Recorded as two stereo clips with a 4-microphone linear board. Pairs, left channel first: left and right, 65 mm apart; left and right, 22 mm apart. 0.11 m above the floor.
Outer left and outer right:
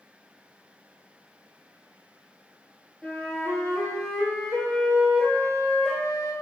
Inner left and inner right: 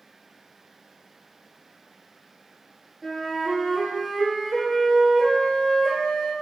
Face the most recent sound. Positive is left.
turn(degrees=20)  # may be behind; listen again after turning